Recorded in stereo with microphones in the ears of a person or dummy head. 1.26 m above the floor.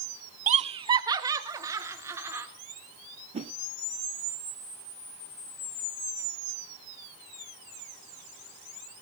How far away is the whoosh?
About 0.7 m.